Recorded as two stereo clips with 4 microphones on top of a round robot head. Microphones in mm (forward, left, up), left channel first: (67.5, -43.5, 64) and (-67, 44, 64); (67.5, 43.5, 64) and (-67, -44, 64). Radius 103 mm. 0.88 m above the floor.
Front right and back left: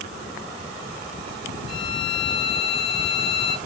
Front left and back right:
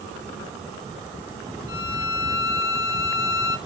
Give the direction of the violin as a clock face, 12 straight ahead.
11 o'clock.